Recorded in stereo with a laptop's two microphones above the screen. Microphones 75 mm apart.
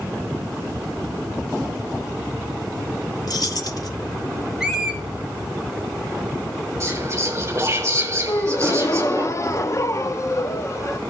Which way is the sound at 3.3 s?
55° left (ahead or behind).